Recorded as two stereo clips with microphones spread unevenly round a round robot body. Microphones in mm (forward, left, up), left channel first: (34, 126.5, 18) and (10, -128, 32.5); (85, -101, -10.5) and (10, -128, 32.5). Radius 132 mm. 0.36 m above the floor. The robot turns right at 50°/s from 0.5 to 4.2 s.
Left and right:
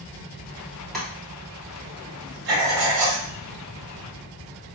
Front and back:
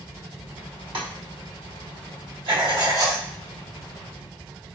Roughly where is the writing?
Behind right.